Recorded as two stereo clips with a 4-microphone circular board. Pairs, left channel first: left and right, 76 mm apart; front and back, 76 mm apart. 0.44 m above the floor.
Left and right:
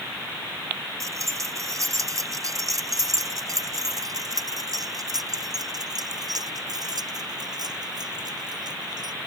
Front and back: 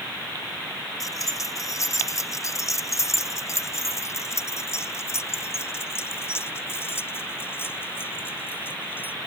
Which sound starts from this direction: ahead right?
Keys jangling, at 1.0 s.